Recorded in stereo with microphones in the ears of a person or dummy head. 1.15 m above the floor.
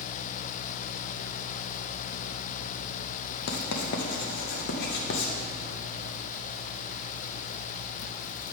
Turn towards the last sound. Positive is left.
turn(degrees=60)  # may be behind; listen again after turning